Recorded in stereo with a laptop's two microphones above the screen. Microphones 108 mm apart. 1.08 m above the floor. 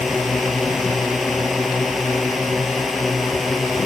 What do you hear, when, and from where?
0.0 s a drone: centre (ahead or behind)